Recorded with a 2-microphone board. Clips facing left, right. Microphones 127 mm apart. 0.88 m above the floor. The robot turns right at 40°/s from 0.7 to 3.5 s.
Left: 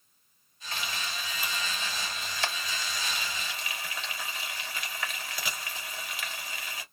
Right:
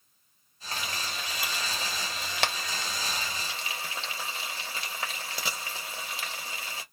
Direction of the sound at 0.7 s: 40° right (ahead or behind).